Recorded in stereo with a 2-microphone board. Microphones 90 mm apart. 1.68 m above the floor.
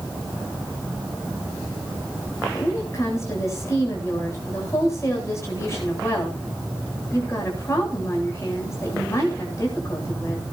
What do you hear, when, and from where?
2.5 s a woman speaking: 30° left (ahead or behind), 8.5 m